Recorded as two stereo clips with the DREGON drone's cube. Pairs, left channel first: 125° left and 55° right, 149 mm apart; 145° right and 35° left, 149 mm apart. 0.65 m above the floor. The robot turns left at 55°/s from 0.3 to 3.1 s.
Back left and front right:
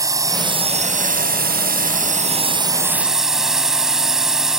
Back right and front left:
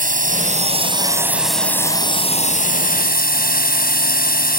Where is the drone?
10° left; by 4.6 s 145° right.